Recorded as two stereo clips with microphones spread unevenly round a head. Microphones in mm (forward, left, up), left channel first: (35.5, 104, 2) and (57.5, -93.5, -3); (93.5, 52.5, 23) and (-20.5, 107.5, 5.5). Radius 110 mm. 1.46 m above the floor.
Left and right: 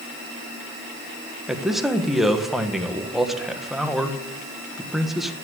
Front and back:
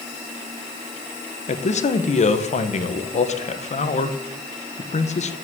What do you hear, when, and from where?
1.5 s a man speaking: 5° left, 1.5 m